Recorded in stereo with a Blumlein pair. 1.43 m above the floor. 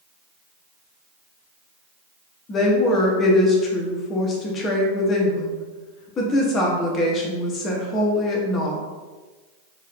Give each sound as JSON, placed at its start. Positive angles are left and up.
{"t": 2.5, "sound": "a woman speaking", "azimuth_deg": 25, "distance_m": 0.9}